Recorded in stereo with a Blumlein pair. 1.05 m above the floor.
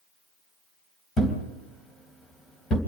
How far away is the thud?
About 3 m.